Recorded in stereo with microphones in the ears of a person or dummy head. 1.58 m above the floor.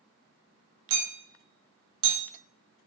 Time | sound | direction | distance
0.9 | hammering | 80° right | 3 m